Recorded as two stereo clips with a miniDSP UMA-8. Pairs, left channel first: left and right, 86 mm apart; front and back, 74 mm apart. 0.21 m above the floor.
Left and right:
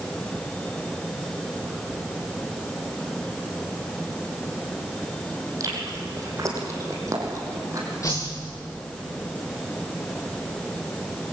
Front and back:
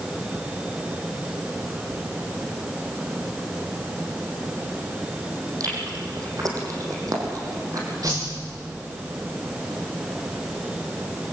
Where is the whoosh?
140° left, 8 m.